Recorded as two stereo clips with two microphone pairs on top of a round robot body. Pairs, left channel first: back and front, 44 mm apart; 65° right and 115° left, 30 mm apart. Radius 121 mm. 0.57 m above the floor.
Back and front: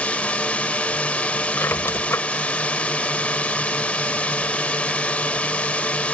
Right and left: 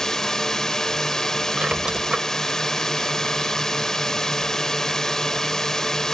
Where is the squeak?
Straight behind.